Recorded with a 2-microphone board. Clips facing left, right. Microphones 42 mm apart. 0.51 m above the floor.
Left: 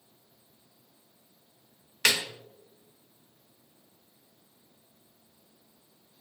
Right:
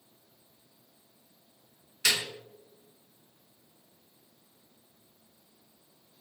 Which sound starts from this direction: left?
A snare drum, at 2.0 s.